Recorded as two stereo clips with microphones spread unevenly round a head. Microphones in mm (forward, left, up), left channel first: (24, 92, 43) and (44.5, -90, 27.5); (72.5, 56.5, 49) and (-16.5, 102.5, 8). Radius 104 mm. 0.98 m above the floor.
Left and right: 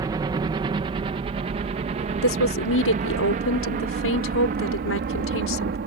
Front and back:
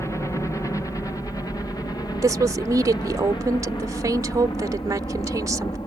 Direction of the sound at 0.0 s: 110° right.